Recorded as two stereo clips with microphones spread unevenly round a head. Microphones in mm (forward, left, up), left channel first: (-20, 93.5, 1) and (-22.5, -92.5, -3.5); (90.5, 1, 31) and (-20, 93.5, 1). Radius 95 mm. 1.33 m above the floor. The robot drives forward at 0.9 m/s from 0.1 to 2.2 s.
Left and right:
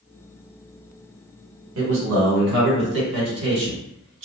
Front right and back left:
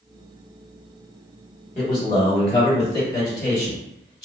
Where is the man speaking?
95° right, 1.4 m; by 4.2 s 110° right, 1.5 m.